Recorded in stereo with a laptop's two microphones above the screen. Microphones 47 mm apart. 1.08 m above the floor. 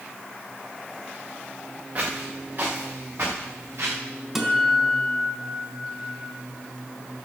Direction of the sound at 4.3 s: 10° right (ahead or behind).